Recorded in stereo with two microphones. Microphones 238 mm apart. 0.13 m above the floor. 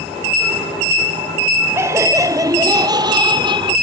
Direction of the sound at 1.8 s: 10° right (ahead or behind).